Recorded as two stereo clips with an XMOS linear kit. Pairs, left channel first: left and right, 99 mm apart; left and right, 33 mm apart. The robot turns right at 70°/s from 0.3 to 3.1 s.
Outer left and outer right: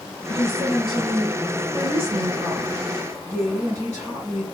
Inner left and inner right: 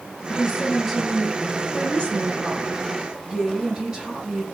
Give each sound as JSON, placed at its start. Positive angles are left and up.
{"t": 0.3, "sound": "a woman speaking", "azimuth_deg": 140, "distance_m": 3.5}